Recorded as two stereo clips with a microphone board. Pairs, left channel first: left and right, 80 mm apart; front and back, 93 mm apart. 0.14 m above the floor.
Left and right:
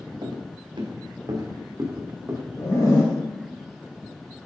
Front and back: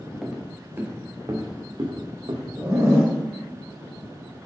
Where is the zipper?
120° left, 2.5 m.